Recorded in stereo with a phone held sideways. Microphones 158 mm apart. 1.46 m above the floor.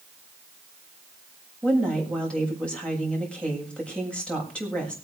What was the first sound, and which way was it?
A woman speaking, 5° left (ahead or behind).